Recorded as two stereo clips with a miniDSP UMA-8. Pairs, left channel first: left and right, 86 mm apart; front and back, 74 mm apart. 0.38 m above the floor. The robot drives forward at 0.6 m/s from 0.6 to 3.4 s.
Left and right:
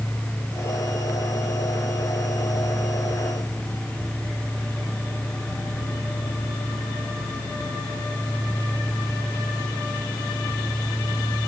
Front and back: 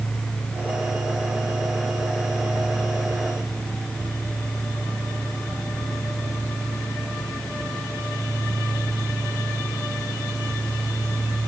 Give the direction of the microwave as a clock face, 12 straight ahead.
No microwave in this recording.